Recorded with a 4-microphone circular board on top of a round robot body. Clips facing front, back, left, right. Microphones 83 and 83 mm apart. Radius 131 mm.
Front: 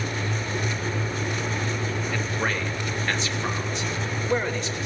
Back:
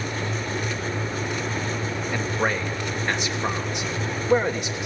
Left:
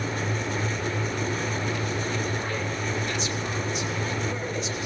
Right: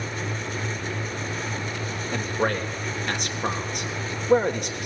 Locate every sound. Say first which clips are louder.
2.1 s a man speaking: back 5 dB, right 4 dB; 105° right, 3 m